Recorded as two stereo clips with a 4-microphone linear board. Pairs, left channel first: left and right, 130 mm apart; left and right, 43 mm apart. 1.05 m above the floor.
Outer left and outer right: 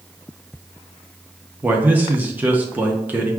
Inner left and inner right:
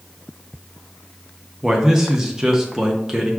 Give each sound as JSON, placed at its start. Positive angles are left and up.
{"t": 1.6, "sound": "a man speaking", "side_deg": -15, "distance_m": 0.7}